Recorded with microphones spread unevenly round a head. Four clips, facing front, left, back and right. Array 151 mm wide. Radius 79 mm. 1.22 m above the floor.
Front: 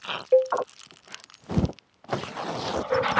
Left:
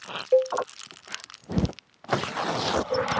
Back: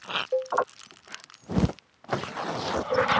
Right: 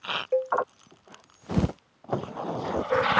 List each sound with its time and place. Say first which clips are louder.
0.3 s a cowbell: left 5 dB, front 9 dB; 40° left